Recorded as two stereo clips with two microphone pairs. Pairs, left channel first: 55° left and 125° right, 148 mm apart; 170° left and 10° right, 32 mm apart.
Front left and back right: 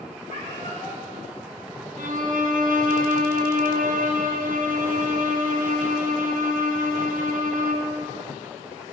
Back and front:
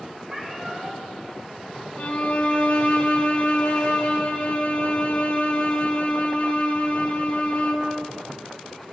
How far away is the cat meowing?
About 3 m.